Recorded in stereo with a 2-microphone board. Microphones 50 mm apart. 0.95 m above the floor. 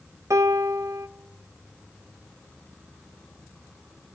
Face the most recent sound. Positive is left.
turn(degrees=-85)